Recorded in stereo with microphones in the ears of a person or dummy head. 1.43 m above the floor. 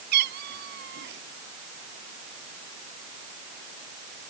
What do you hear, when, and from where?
0.1 s a cat meowing: 60° right (ahead or behind); by 1.2 s 65° right (ahead or behind)